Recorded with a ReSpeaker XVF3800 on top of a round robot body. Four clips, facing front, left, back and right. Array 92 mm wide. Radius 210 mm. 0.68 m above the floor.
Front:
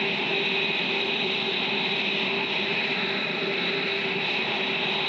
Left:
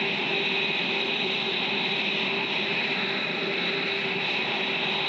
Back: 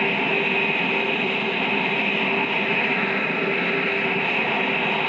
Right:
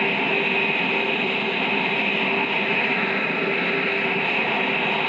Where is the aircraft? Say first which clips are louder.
Right 6 dB, back 5 dB; 135° right.